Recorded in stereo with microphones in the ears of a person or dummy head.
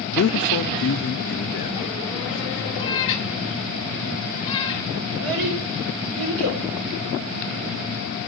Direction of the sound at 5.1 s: 75° right (ahead or behind).